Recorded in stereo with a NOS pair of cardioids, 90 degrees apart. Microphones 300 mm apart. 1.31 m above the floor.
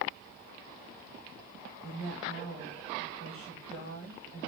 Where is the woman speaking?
45° right, 1.5 m.